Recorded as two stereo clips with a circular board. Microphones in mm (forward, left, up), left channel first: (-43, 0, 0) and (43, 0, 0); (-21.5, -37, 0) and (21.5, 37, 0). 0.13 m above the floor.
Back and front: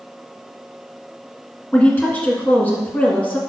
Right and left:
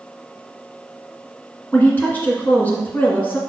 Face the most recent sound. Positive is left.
turn(degrees=-145)